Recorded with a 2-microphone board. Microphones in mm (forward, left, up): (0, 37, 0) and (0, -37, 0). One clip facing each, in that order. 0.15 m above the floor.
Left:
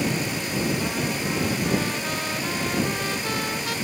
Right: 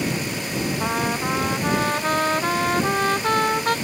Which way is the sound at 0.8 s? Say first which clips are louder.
Right 3 dB; 50° right (ahead or behind).